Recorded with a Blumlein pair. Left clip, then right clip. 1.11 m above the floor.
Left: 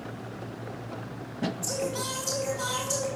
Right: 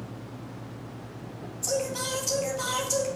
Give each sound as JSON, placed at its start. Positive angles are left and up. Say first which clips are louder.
{"t": 1.6, "sound": "singing", "louder": "right 5 dB", "azimuth_deg": -5, "distance_m": 3.5}